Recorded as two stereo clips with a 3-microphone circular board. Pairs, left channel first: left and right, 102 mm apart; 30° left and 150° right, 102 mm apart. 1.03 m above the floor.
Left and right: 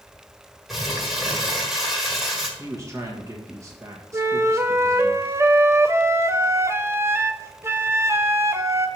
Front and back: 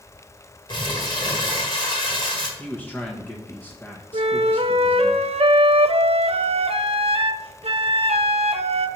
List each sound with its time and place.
0.7 s crumpling: straight ahead, 1.7 m
2.6 s a man speaking: 35° right, 1.3 m
4.1 s a flute: 155° right, 0.5 m